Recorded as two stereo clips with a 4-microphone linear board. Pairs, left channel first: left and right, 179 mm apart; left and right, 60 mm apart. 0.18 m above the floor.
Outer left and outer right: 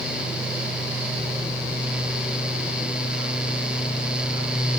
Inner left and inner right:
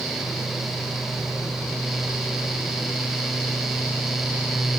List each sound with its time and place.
Only background noise.